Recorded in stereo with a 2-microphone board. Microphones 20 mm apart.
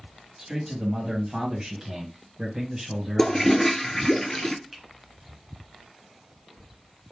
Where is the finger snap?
20° right (ahead or behind), 1.1 m.